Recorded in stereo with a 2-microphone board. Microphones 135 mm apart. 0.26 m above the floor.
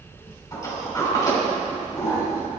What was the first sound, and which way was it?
A sliding door, 25° left (ahead or behind).